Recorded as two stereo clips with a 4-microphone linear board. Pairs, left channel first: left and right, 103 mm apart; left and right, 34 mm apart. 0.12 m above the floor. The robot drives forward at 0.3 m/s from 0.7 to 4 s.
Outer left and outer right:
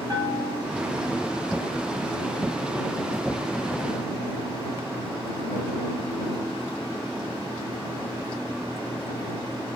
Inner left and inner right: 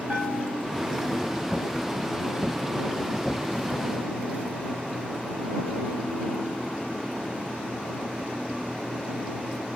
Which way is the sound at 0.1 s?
30° right (ahead or behind).